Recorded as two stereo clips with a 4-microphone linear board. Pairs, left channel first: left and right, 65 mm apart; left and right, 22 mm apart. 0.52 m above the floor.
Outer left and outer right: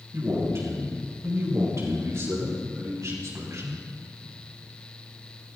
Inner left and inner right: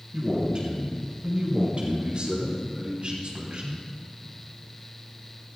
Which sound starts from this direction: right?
A man speaking, at 0.1 s.